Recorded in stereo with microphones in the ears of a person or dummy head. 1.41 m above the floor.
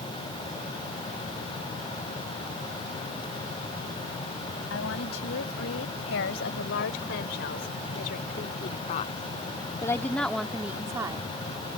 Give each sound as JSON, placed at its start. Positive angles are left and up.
{"t": 4.7, "sound": "a woman speaking", "side_deg": 80}